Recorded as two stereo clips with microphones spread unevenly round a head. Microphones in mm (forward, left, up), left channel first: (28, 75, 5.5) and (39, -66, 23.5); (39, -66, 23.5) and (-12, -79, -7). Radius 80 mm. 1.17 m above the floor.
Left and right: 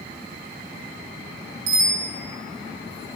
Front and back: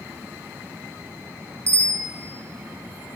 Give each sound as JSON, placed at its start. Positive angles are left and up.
{"t": 1.7, "sound": "a bicycle bell", "azimuth_deg": -125, "distance_m": 8.0}